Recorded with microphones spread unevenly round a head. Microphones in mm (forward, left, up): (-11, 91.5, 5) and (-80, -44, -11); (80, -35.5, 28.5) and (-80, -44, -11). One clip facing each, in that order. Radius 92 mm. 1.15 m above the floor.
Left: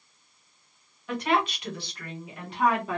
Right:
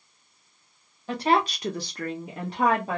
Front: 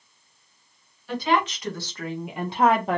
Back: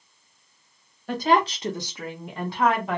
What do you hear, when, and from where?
1.1 s a woman speaking: 165° right, 0.8 m; by 3.0 s 55° right, 0.9 m